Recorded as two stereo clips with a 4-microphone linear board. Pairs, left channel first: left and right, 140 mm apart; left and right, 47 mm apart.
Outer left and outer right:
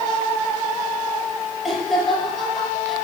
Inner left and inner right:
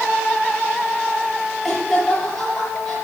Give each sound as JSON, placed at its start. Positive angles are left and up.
{"t": 1.6, "sound": "laughter", "side_deg": 0, "distance_m": 6.0}